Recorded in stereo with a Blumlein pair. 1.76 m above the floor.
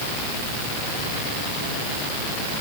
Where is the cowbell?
I don't hear a cowbell.